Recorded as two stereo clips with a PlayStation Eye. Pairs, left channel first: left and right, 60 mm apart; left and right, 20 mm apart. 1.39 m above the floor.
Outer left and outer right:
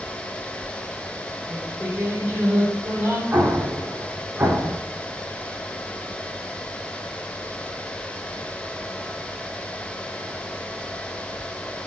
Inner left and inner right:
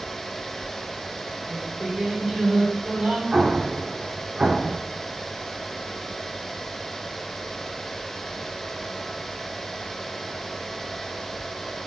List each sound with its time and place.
1.5 s singing: 20° right (ahead or behind), 4.5 m
3.3 s an explosion: 30° right (ahead or behind), 1.9 m